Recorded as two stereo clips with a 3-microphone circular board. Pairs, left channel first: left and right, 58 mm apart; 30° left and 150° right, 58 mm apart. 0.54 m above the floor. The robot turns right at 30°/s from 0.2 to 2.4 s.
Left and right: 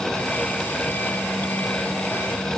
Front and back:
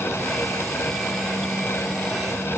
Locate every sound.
Only background noise.